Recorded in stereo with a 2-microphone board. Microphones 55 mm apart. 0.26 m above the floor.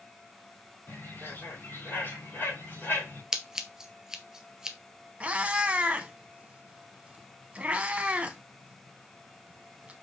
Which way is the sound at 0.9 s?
45° left (ahead or behind).